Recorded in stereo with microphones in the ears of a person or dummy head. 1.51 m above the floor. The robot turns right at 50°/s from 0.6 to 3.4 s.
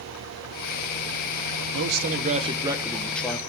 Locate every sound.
1.7 s a man speaking: 70° right, 1.2 m; by 3.4 s 15° left, 1.2 m